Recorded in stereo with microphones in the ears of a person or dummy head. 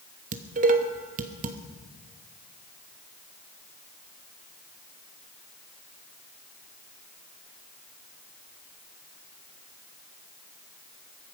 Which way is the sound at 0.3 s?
40° right (ahead or behind).